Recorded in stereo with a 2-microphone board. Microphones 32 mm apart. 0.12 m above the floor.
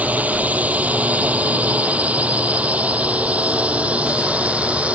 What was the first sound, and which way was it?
A drone, 50° right (ahead or behind).